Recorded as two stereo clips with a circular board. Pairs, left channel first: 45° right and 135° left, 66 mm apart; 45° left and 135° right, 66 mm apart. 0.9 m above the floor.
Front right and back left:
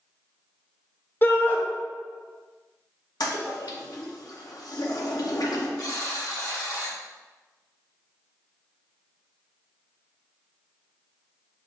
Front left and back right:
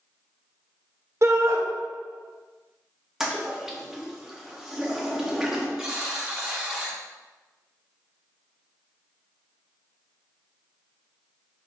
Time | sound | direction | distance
1.2 | a shout | 100° right | 0.8 m
3.2 | a toilet flushing | 50° right | 0.6 m
5.8 | a buzzer | 55° right | 1.0 m